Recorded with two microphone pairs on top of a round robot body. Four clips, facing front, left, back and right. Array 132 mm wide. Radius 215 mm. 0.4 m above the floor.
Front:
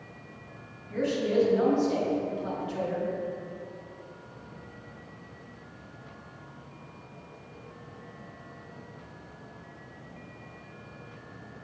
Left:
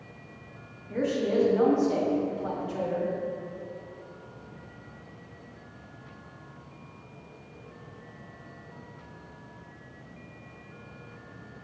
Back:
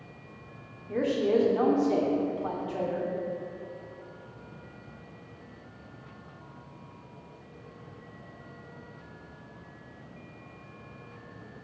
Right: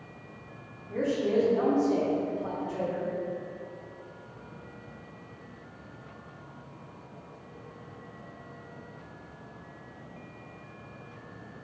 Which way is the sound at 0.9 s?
175° left.